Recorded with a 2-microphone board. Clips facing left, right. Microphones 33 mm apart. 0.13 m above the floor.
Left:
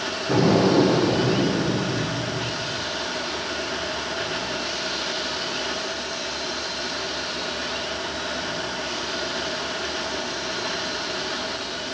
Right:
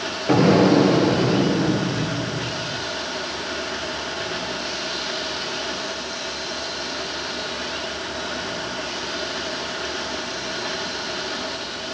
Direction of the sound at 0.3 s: 45° right (ahead or behind).